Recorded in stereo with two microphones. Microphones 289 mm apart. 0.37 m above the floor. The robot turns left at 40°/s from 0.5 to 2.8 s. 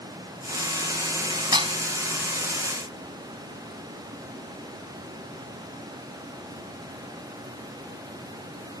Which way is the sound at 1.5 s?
15° right (ahead or behind).